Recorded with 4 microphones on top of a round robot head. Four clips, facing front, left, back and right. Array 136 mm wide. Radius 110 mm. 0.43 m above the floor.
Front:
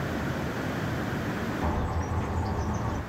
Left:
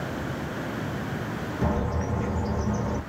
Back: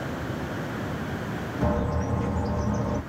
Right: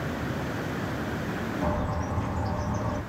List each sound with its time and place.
1.6 s a bird: 130° left, 2.0 m